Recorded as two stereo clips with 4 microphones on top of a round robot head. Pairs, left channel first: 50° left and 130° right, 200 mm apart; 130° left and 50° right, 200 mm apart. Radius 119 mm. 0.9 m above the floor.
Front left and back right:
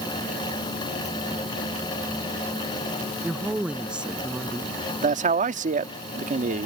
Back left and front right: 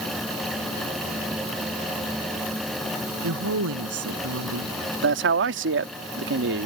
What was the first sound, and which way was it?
A woman speaking, 45° right.